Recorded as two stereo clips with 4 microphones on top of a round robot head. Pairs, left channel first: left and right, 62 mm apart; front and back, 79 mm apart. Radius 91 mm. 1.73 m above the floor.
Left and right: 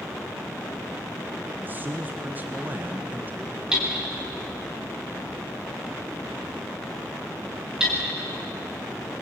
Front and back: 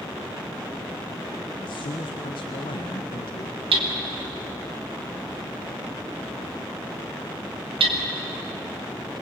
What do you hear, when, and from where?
1.6 s a man speaking: 30° right, 1.4 m
3.7 s hammering: 170° right, 2.5 m